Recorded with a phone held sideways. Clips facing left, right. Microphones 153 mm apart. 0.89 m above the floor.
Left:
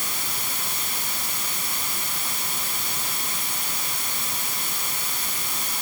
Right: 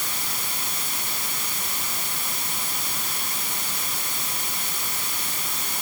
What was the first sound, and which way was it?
Only background noise.